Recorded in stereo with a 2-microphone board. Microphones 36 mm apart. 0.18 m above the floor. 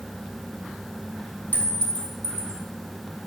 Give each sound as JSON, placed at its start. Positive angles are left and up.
{"t": 1.5, "sound": "a clink", "side_deg": 50, "distance_m": 1.9}